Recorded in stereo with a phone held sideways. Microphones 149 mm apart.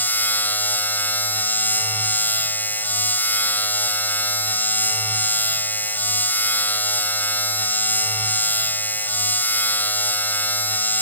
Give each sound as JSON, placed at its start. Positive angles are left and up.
{"t": 0.0, "sound": "a machine running", "side_deg": 10}